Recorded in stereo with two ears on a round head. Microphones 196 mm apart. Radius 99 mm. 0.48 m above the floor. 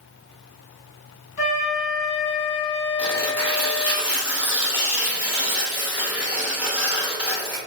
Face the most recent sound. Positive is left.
turn(degrees=-5)  # may be behind; listen again after turning